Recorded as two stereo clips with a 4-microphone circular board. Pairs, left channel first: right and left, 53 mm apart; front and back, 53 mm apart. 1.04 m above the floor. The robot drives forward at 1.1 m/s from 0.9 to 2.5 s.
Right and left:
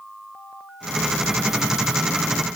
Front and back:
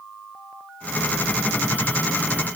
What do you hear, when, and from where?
Only background noise.